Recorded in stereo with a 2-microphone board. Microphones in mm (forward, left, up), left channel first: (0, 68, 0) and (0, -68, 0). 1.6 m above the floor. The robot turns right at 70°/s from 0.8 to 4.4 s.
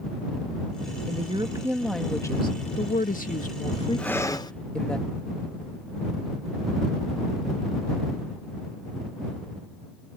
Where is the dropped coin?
I don't hear a dropped coin.